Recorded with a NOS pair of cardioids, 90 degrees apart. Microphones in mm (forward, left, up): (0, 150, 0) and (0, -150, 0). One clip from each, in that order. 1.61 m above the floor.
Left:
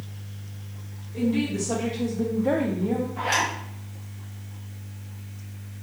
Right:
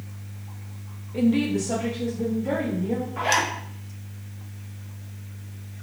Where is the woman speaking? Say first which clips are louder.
Right 3 dB; 35° right, 0.6 m; by 3.1 s 60° left, 1.0 m.